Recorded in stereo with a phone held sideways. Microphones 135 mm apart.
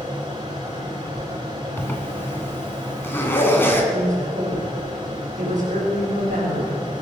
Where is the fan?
40° right (ahead or behind), 6 m.